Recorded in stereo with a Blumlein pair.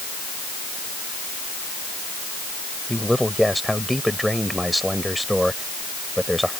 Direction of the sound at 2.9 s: Straight ahead.